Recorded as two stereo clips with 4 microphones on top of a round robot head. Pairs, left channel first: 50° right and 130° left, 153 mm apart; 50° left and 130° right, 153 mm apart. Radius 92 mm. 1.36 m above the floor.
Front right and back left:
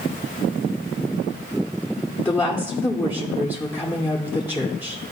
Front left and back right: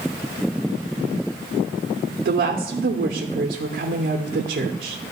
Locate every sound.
2.2 s a woman speaking: 125° right, 0.7 m